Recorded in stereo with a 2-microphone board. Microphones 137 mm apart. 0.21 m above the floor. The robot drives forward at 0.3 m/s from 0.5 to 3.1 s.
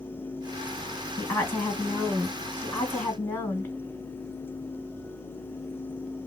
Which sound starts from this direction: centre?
A woman speaking, at 1.2 s.